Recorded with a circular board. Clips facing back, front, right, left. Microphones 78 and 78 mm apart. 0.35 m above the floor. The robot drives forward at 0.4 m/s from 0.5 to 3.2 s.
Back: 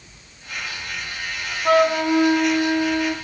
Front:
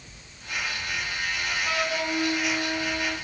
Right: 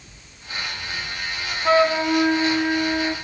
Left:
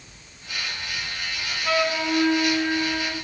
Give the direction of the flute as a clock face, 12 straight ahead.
5 o'clock.